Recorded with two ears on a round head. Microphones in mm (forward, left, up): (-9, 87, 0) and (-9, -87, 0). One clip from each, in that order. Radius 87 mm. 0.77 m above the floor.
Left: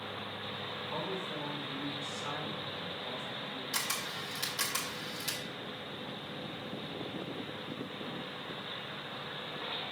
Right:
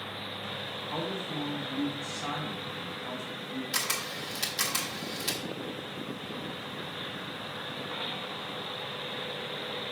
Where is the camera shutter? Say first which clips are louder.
Right 4 dB; 20° right (ahead or behind), 1.3 m.